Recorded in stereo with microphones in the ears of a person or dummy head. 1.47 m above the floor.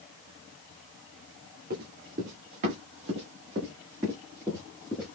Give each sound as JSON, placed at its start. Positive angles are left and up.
{"t": 1.7, "sound": "running footsteps", "side_deg": -45, "distance_m": 2.0}